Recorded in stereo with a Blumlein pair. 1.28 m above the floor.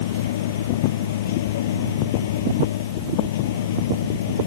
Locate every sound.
0.0 s a machine running: 55° left